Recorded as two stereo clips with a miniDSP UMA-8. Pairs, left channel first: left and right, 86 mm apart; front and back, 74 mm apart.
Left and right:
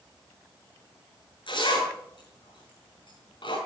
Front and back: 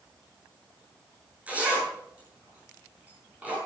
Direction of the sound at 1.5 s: 110° left.